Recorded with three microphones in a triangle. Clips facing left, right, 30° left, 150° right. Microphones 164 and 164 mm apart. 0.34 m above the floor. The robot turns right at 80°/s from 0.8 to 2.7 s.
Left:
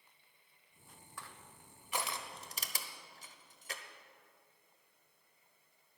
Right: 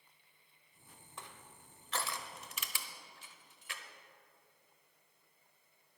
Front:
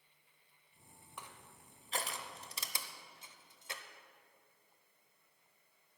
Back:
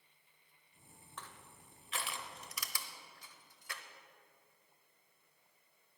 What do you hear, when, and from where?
1.2 s crushing: 40° right, 0.9 m; by 3.8 s 80° left, 0.9 m